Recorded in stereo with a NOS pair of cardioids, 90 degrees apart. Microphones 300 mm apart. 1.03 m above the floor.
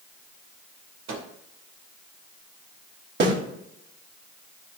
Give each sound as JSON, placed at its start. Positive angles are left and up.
{"t": 1.1, "sound": "a microwave", "azimuth_deg": -65, "distance_m": 3.0}
{"t": 3.2, "sound": "a snare drum", "azimuth_deg": -40, "distance_m": 4.0}